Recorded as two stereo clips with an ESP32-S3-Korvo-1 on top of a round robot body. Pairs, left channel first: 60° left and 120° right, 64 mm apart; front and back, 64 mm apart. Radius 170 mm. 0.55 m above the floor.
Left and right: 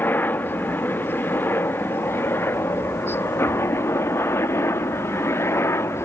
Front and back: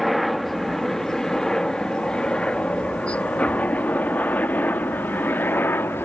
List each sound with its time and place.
0.0 s a helicopter: 90° left; by 6.0 s 40° left